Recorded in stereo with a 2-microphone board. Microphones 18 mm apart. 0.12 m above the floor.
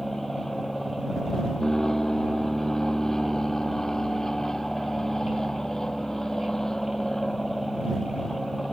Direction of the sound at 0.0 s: 30° left (ahead or behind).